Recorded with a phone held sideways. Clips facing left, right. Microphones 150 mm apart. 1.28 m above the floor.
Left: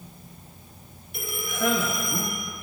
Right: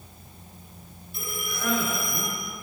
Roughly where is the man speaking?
Left.